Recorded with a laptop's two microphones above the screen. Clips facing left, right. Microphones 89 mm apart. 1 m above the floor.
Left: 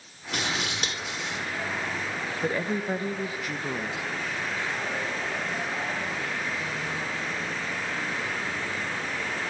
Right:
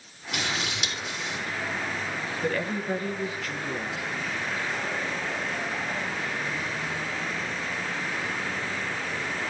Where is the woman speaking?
15° left (ahead or behind), 0.7 m.